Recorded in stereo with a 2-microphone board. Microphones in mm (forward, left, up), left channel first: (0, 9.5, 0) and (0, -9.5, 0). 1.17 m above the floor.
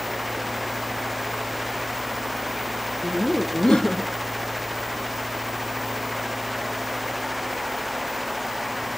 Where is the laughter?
60° left (ahead or behind), 0.7 m.